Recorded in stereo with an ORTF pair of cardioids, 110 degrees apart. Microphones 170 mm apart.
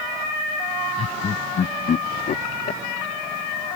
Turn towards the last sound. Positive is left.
turn(degrees=50)